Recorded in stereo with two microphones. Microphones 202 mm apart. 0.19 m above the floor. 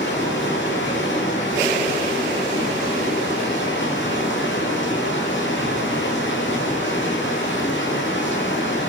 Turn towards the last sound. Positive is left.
turn(degrees=65)  # may be behind; listen again after turning